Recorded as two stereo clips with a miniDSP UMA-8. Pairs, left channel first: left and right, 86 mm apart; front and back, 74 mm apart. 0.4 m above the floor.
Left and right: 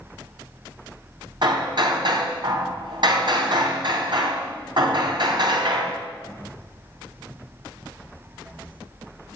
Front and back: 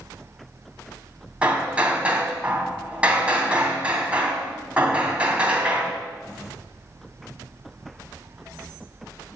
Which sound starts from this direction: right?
Hammering, at 1.4 s.